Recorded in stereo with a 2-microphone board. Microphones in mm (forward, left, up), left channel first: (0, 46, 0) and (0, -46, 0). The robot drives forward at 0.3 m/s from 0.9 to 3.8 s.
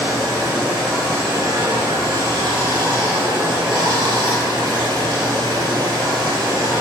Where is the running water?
45° right (ahead or behind), 1.5 m; by 6.8 s 60° right (ahead or behind), 1.2 m.